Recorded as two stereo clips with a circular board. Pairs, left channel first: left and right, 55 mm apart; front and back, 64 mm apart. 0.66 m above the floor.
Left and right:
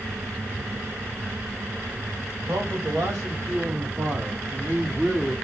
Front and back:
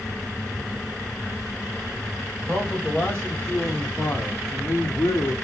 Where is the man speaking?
85° right, 1.8 m; by 5.3 s 10° right, 0.9 m.